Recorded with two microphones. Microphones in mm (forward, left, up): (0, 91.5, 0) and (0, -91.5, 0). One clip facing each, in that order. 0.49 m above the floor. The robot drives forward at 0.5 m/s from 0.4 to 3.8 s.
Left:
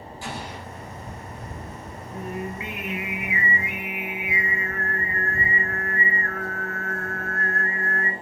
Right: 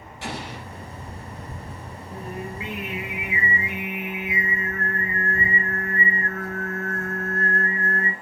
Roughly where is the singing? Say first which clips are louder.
Left 2 dB; right.